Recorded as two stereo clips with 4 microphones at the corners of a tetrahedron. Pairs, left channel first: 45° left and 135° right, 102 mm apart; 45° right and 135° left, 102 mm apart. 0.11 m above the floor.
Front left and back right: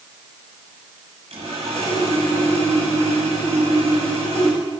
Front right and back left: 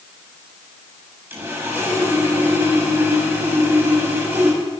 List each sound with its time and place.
1.3 s sawing: 150° right, 7 m